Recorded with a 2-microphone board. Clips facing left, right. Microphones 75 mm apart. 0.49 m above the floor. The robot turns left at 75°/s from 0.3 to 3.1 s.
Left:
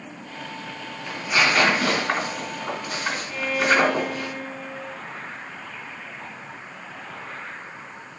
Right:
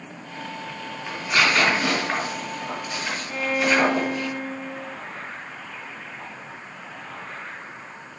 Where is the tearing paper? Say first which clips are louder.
Even; 15° right (ahead or behind), 3.5 m; by 4.3 s 40° left (ahead or behind), 3.5 m.